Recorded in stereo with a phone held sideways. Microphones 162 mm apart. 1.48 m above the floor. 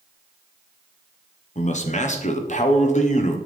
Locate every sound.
1.6 s a man speaking: 50° left (ahead or behind), 1.1 m